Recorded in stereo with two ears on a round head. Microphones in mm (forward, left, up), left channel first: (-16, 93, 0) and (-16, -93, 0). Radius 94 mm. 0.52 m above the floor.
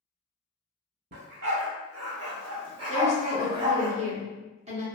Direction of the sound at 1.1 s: 55° right (ahead or behind).